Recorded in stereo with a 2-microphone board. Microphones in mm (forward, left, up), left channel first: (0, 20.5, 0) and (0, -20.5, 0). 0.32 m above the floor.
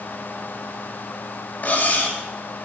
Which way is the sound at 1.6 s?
45° left (ahead or behind).